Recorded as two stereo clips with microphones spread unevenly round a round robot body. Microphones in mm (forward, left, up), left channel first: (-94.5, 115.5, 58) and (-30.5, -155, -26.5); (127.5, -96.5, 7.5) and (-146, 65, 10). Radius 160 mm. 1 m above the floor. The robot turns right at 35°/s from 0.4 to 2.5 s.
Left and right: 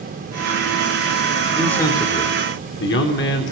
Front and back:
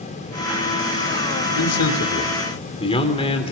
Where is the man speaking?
10° left, 3.5 m; by 3.5 s 45° left, 3.5 m.